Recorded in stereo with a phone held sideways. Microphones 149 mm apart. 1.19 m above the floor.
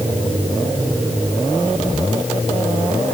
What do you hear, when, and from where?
Only background noise.